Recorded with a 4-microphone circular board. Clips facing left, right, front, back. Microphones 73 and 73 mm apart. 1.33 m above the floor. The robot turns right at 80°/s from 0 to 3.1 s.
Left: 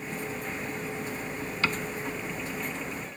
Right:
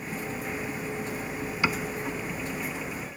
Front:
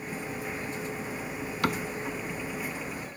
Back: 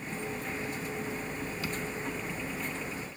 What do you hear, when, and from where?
1.6 s a cupboard door: 15° right; by 1.9 s straight ahead